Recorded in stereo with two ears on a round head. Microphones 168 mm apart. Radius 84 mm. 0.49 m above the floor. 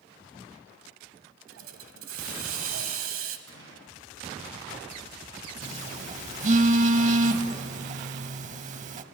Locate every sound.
1.5 s a hiss: 90° right, 1.0 m
3.5 s a gunshot: 80° right, 4 m
5.6 s a phone buzzing: 40° right (ahead or behind), 0.6 m